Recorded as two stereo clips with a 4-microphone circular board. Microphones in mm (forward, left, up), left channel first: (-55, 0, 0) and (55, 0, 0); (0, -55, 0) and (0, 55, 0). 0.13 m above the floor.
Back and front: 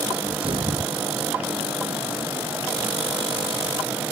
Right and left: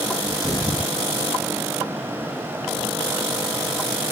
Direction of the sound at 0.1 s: 35° right.